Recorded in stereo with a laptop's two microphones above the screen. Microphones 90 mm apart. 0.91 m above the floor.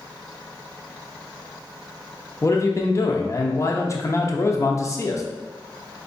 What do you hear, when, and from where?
2.4 s a man speaking: 35° left (ahead or behind), 0.8 m